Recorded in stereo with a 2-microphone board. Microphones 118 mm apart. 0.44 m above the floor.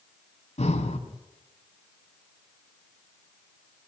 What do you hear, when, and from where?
0.6 s breathing: 70° left (ahead or behind), 3.5 m